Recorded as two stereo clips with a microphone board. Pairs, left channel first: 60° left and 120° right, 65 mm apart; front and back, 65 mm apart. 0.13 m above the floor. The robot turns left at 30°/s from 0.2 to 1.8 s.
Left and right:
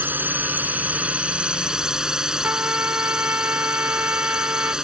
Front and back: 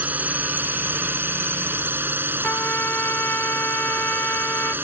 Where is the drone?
145° right; by 4.8 s 170° left.